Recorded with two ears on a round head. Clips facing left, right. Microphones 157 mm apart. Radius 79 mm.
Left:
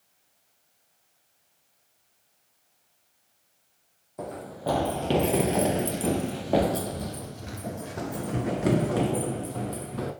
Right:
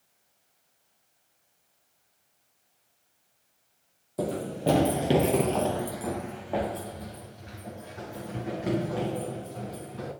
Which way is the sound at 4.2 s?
40° right (ahead or behind).